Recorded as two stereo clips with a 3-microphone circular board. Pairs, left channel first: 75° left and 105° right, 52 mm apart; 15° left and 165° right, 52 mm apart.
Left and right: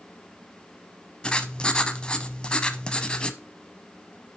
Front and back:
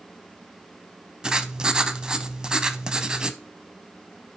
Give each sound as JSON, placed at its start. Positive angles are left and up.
{"t": 1.2, "sound": "writing", "azimuth_deg": 130, "distance_m": 0.7}